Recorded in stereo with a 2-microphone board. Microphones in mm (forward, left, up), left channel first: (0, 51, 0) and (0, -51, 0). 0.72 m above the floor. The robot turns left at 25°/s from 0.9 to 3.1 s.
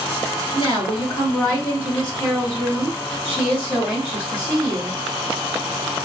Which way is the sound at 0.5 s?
55° left.